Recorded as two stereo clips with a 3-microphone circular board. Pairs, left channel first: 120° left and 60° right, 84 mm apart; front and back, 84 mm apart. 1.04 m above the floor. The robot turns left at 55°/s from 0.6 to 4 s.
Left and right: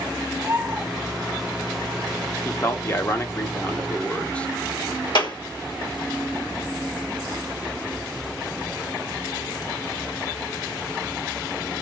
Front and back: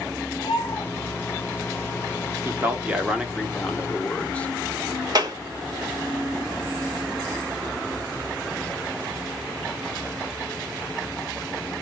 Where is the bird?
5° right, 1.4 m; by 0.8 s 20° right, 1.4 m.